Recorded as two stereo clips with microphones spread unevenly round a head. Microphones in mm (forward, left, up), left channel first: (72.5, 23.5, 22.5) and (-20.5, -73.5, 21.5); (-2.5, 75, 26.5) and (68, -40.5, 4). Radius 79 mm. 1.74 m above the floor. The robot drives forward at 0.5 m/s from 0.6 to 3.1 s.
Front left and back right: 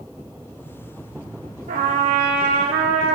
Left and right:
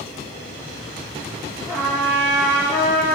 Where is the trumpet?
150° right, 1.5 m; by 3.2 s 165° right, 2 m.